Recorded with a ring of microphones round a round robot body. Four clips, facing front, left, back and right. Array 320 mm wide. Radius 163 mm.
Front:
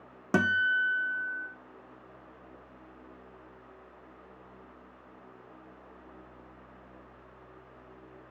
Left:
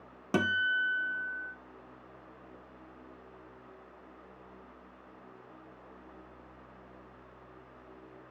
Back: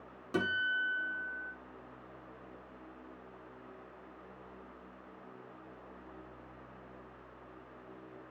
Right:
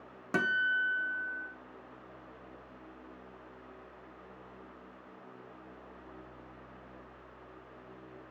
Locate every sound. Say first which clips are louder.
0.3 s a guitar: left 1 dB, front 7 dB; 15° left, 0.7 m